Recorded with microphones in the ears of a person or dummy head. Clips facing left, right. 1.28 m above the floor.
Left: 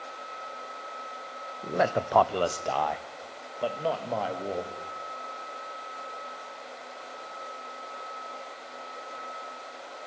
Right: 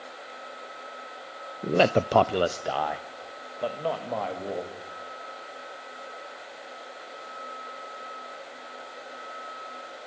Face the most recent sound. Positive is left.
turn(degrees=5)  # may be behind; listen again after turning